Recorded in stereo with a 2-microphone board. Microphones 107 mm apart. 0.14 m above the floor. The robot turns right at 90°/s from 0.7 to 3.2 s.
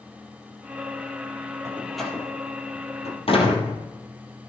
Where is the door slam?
25° right (ahead or behind), 2.5 m; by 3.8 s 60° left (ahead or behind), 2.5 m.